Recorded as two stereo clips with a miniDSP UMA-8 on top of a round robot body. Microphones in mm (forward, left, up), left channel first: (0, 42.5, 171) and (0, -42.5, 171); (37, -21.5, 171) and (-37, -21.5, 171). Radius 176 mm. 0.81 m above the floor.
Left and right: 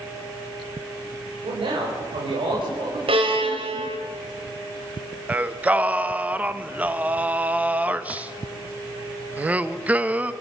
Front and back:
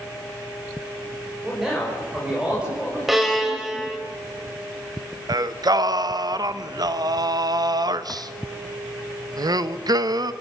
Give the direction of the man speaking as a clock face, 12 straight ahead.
3 o'clock.